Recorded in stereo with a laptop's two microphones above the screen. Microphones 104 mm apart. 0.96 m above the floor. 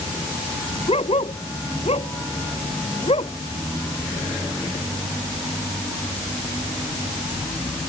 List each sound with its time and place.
0.9 s a dog barking: 75° left (ahead or behind)